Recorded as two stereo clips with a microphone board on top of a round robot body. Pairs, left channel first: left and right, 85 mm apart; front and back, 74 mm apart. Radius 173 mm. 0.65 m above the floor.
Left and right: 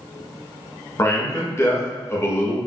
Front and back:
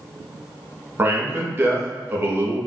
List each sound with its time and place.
1.0 s a man speaking: 135° left, 1.5 m